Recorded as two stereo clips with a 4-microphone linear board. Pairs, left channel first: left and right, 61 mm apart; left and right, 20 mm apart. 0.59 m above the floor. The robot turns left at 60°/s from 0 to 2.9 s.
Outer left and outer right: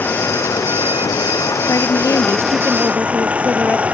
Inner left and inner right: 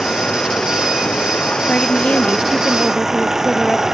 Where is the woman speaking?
110° left; by 3.9 s 35° left.